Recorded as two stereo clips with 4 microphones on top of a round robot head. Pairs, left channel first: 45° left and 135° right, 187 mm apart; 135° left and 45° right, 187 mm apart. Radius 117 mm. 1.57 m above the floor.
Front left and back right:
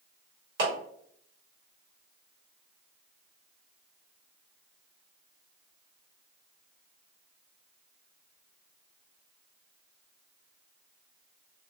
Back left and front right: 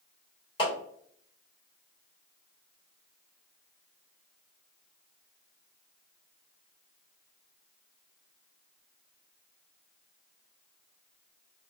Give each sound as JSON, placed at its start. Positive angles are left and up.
{"t": 0.6, "sound": "a clap", "azimuth_deg": -160, "distance_m": 1.2}